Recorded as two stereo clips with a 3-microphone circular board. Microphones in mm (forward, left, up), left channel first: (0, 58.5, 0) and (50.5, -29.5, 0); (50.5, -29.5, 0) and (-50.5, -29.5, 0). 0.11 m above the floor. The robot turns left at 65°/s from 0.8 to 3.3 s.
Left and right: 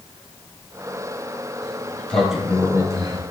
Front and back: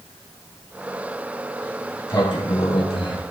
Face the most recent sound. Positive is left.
turn(degrees=-35)